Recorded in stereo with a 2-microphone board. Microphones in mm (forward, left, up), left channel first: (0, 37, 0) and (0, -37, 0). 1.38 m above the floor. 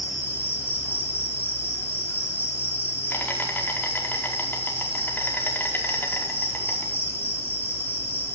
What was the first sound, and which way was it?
An insect, 25° left (ahead or behind).